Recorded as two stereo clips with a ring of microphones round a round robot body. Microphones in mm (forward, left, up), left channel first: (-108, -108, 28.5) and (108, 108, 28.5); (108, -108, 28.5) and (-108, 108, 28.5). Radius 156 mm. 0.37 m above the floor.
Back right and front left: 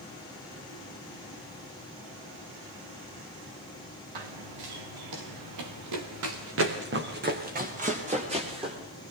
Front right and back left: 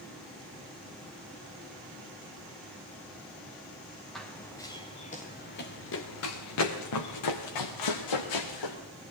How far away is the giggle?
I don't hear a giggle.